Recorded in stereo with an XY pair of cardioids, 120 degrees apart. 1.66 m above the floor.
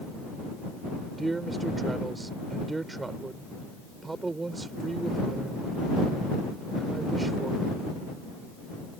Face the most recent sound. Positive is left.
turn(degrees=-20)